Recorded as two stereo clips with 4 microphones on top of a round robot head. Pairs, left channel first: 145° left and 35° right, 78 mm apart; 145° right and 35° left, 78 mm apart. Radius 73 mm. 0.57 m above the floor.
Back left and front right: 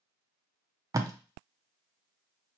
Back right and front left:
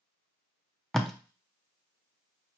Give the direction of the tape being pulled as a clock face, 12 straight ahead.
2 o'clock.